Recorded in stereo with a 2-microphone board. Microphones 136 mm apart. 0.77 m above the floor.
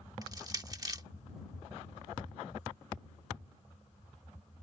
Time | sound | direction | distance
0.2 | crushing | 25° right (ahead or behind) | ?